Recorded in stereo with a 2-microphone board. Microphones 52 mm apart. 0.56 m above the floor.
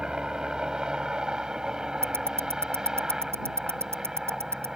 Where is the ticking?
60° right (ahead or behind).